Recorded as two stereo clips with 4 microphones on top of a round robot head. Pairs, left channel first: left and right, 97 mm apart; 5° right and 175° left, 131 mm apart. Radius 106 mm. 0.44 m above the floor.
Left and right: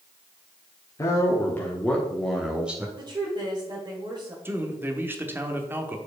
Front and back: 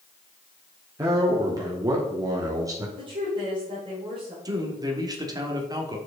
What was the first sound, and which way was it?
A man speaking, 130° left.